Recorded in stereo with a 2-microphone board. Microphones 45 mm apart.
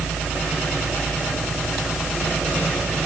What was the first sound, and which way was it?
Only background noise.